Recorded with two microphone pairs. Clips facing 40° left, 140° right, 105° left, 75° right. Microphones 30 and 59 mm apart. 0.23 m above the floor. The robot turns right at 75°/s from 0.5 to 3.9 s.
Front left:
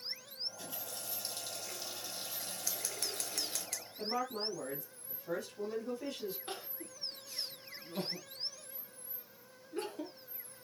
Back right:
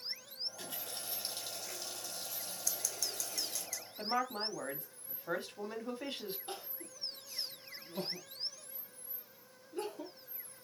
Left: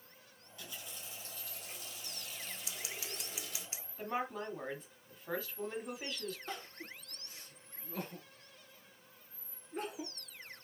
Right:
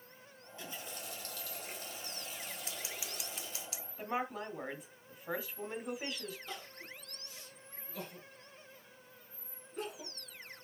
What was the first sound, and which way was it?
A running tap, 140° right.